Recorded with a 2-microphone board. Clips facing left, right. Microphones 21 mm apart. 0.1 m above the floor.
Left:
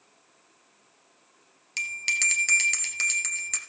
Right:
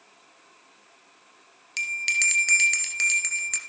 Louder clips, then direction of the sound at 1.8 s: Right 2 dB; 5° right (ahead or behind).